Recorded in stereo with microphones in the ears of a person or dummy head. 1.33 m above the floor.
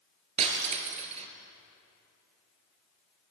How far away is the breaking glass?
About 3.5 m.